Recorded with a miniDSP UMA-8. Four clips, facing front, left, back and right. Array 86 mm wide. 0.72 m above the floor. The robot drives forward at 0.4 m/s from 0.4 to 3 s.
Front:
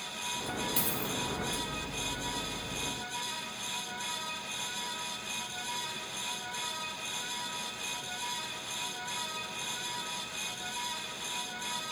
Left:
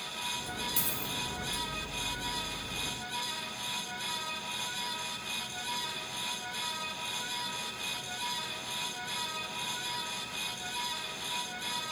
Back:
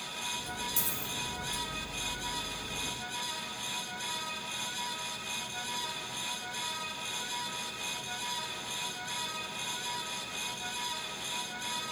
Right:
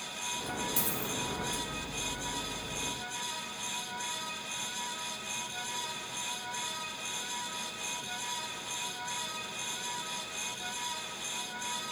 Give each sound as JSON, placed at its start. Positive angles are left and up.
{"t": 0.8, "sound": "a dropped coin", "azimuth_deg": 10, "distance_m": 0.6}